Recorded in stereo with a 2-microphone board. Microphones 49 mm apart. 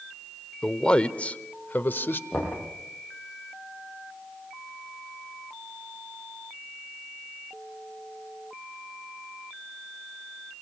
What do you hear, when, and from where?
0.6 s a man speaking: 15° left (ahead or behind), 1.0 m; by 2.2 s 50° left (ahead or behind), 1.1 m
2.3 s knocking: 25° left (ahead or behind), 9.5 m